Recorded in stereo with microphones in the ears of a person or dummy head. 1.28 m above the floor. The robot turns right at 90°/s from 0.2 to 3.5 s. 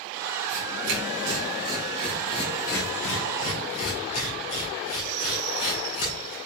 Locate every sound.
0.5 s tearing paper: 45° right (ahead or behind), 3.5 m; by 6.3 s 40° left (ahead or behind), 3.5 m